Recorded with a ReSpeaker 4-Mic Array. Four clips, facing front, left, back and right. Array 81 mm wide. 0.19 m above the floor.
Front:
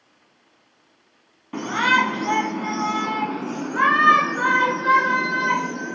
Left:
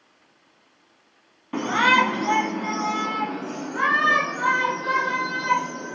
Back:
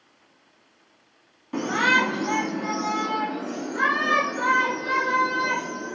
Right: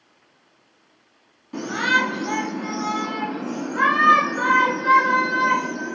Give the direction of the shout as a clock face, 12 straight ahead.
9 o'clock.